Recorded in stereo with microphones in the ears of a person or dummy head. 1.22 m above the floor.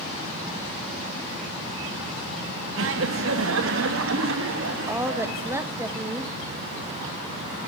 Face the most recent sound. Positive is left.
turn(degrees=-10)  # may be behind; listen again after turning